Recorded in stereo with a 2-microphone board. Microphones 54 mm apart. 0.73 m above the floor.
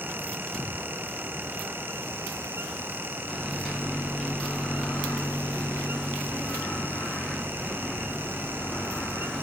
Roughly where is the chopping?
I don't hear chopping.